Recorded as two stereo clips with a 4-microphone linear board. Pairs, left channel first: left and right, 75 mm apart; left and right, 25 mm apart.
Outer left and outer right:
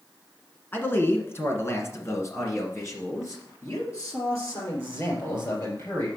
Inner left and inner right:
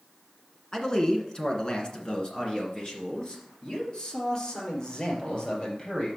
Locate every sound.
0.7 s a man speaking: 25° left (ahead or behind), 1.6 m; by 6.1 s 45° left (ahead or behind), 3.5 m